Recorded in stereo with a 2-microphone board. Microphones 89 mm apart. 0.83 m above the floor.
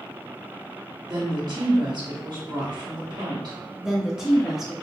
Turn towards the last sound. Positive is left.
turn(degrees=-5)  # may be behind; listen again after turning